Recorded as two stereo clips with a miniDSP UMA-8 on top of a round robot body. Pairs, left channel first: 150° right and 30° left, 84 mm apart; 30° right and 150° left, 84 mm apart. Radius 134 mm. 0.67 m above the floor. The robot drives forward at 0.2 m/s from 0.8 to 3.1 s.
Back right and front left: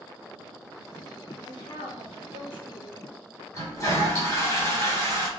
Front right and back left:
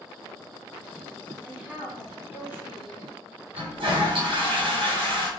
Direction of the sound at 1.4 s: 135° right.